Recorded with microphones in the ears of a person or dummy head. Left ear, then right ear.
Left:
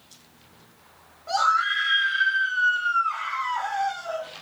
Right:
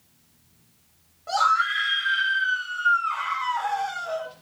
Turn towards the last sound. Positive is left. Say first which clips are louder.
# even
turn(degrees=-15)  # may be behind; listen again after turning